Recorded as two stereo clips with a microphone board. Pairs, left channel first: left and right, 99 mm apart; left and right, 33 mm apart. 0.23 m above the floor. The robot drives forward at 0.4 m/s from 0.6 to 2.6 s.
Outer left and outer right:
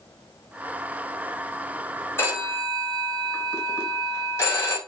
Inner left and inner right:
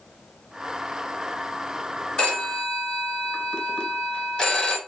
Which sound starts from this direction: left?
A phone ringing, at 2.2 s.